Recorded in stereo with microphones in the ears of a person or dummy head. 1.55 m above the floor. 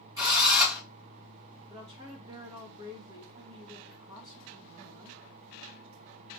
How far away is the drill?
About 1.6 m.